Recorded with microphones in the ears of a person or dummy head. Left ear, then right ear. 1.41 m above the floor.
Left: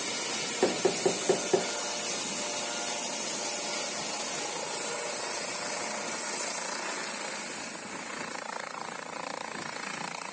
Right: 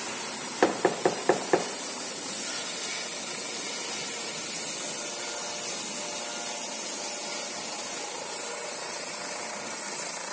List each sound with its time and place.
0.6 s knocking: 45° right (ahead or behind), 0.9 m